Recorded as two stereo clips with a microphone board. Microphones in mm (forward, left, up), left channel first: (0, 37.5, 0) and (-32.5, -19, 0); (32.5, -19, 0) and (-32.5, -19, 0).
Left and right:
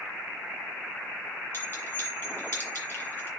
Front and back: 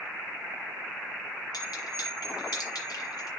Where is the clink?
5° left, 2.5 m.